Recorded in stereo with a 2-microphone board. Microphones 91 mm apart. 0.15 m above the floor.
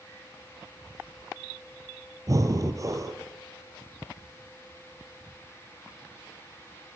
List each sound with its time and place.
2.3 s breathing: 40° right (ahead or behind), 2.5 m